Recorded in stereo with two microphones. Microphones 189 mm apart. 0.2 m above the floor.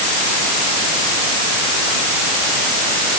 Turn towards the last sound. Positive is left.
No sound to turn to.